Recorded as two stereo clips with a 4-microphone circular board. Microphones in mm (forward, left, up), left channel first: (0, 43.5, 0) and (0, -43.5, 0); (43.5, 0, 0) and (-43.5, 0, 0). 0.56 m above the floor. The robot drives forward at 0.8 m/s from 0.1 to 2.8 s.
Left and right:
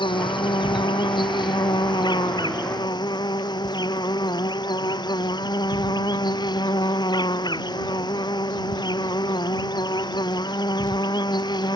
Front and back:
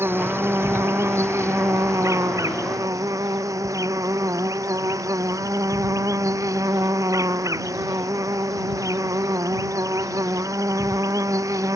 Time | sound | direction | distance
0.0 | an insect | 115° left | ?